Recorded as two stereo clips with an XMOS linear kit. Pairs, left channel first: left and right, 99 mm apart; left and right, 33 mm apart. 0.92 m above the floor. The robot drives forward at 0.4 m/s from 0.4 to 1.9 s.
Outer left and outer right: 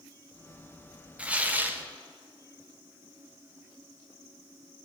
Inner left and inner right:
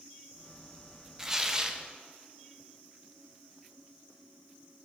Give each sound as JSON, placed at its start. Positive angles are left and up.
{"t": 1.2, "sound": "tearing paper", "side_deg": -15, "distance_m": 0.7}